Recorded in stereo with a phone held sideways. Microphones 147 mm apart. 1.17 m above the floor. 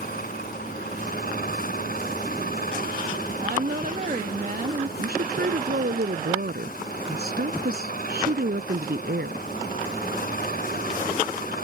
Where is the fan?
75° left (ahead or behind).